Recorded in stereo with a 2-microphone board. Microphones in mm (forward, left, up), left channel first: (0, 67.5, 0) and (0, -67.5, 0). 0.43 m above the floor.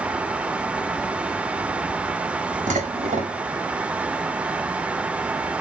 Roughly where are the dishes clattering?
Right.